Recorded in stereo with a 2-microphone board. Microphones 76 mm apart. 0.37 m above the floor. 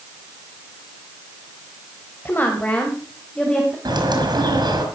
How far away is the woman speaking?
About 1.9 m.